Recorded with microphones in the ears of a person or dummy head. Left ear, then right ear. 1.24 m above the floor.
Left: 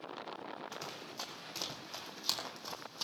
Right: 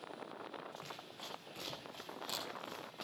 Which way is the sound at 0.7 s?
70° left (ahead or behind).